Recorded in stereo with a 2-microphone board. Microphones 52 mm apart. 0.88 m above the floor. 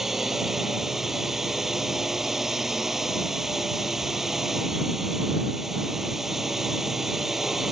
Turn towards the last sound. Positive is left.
turn(degrees=-5)  # may be behind; listen again after turning